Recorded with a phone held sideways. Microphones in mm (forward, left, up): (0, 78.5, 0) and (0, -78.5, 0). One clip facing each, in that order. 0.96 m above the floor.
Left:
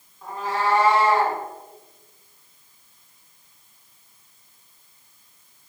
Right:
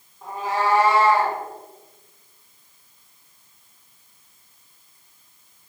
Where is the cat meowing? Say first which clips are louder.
Right 1 dB; 30° right (ahead or behind), 1.3 m; by 1.4 s 5° left (ahead or behind), 1.3 m.